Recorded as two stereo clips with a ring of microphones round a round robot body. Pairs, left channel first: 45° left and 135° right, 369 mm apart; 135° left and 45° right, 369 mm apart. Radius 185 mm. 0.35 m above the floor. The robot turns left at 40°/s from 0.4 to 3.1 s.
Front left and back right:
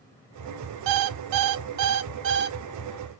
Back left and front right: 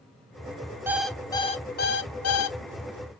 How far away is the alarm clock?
About 0.6 m.